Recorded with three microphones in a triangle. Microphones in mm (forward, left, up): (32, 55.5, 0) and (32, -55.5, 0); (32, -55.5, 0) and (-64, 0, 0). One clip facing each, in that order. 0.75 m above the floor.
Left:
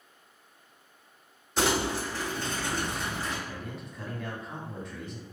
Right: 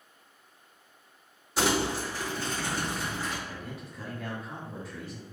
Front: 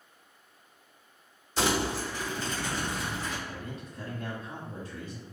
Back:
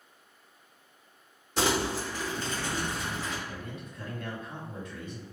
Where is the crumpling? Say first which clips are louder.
Even, even; 175° right, 1.7 m.